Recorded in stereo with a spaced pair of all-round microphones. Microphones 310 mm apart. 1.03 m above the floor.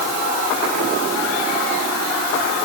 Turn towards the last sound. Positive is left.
No sound to turn to.